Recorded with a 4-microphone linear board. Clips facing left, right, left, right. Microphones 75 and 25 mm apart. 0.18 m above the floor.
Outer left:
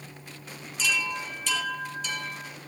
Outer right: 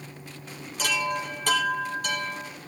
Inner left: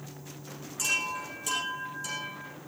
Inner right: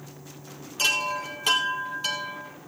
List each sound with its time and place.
0.8 s a chime: 50° right (ahead or behind), 3.5 m